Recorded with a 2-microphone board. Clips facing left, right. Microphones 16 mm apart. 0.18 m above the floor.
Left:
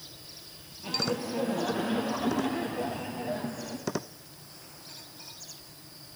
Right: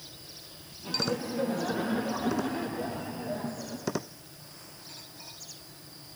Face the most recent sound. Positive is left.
turn(degrees=40)  # may be behind; listen again after turning